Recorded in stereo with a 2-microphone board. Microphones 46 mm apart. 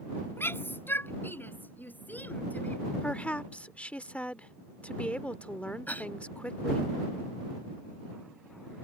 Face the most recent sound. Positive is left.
turn(degrees=40)  # may be behind; listen again after turning